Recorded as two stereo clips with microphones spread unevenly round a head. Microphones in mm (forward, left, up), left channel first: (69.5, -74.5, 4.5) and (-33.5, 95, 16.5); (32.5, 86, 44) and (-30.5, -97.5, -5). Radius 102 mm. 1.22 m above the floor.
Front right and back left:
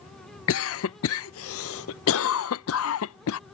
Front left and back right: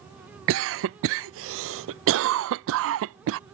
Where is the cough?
85° right.